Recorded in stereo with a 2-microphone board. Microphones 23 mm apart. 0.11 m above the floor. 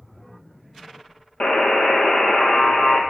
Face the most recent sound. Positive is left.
turn(degrees=70)  # may be behind; listen again after turning